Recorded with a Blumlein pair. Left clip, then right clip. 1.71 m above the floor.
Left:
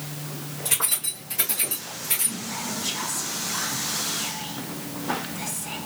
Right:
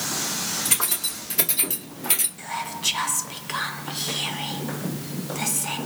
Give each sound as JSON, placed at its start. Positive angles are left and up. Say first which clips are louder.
{"t": 0.7, "sound": "keys jangling", "louder": "right 2 dB", "azimuth_deg": -15, "distance_m": 3.0}
{"t": 2.4, "sound": "whispering", "louder": "right 2 dB", "azimuth_deg": -60, "distance_m": 0.6}